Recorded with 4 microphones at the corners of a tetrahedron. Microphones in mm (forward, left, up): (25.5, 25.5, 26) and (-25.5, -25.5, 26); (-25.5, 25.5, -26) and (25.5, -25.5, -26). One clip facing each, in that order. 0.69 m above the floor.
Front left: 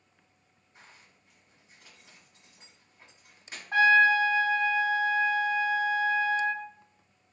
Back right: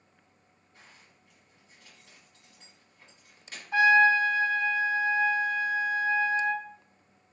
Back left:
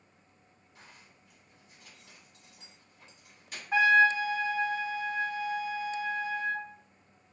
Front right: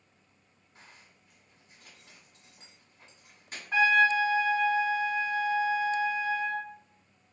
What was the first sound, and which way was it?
A zipper, 15° right.